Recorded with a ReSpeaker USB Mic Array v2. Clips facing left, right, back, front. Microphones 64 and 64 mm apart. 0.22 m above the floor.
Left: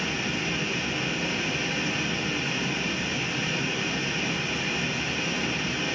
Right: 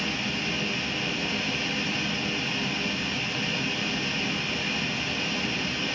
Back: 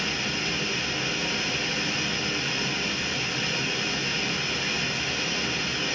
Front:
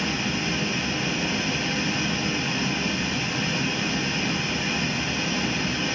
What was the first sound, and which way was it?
Running water, 10° left.